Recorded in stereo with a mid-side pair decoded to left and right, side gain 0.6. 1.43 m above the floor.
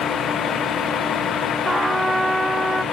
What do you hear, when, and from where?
0.0 s a vehicle: 45° left
1.6 s a trumpet: 10° right